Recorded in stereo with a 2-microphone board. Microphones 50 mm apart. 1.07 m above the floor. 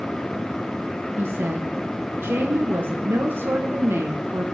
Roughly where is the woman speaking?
Right.